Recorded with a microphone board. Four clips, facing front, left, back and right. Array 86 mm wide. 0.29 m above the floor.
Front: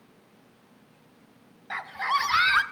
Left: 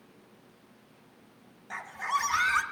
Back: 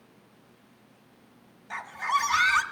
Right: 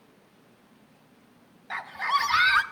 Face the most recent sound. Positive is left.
turn(degrees=-40)